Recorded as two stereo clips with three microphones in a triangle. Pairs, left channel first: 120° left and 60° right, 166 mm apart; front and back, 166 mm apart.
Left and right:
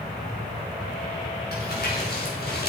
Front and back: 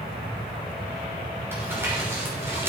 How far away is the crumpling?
About 5.5 m.